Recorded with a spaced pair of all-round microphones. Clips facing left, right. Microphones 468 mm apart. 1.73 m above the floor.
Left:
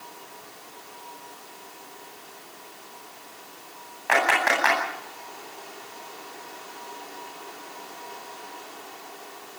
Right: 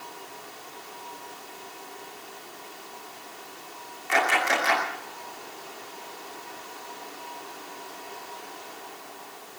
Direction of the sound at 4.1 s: 80° left.